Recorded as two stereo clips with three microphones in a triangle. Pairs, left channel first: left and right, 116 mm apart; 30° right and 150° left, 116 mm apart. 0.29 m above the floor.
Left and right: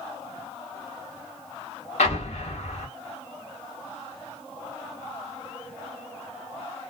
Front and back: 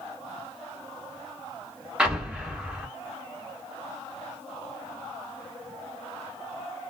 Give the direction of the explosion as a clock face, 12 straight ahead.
10 o'clock.